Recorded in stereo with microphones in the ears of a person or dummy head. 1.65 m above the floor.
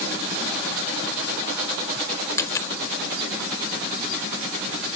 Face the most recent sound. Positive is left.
turn(degrees=20)  # may be behind; listen again after turning